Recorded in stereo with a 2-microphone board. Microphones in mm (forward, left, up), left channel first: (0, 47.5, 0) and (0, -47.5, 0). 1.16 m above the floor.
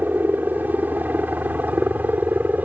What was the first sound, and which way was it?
A helicopter, 20° right (ahead or behind).